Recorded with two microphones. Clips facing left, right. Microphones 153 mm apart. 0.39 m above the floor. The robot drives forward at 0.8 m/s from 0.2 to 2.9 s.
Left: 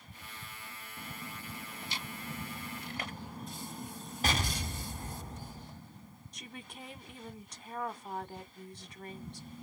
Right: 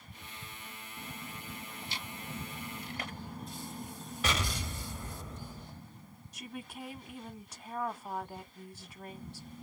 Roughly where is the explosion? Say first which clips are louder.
Left 1 dB; left.